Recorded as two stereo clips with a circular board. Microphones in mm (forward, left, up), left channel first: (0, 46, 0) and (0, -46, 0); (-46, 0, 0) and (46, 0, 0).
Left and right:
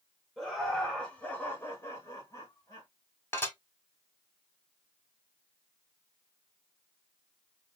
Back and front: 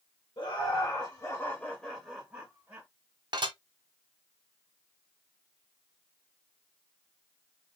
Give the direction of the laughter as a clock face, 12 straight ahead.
6 o'clock.